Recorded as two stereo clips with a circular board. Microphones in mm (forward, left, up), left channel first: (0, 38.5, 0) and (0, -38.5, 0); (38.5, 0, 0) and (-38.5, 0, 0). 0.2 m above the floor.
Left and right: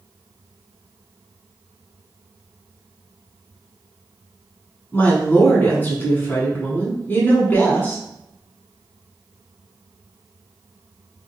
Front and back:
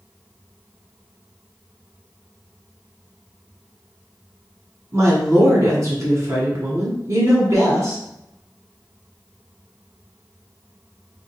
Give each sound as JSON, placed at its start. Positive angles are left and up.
{"t": 4.9, "sound": "a woman speaking", "azimuth_deg": 150, "distance_m": 1.8}